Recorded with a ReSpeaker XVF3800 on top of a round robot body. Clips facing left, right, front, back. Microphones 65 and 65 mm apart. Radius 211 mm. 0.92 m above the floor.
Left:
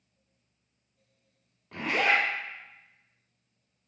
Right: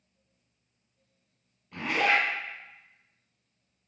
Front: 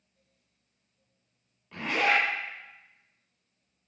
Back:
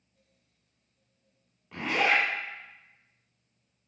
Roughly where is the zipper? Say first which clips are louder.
Even, even; left.